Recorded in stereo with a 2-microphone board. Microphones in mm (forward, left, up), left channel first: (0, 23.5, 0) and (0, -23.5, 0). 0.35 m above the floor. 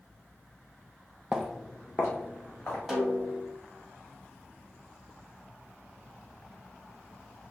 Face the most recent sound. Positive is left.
turn(degrees=-5)  # may be behind; listen again after turning